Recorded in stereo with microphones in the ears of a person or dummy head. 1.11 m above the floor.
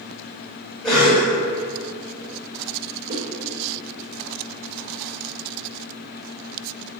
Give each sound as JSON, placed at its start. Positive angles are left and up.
{"t": 0.8, "sound": "a cough", "side_deg": 5, "distance_m": 1.8}
{"t": 3.1, "sound": "a whoosh", "side_deg": -45, "distance_m": 0.8}